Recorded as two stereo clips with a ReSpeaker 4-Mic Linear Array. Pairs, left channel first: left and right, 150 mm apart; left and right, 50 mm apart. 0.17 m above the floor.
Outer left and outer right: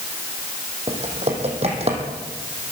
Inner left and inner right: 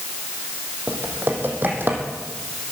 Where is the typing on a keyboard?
45° right (ahead or behind), 3 m.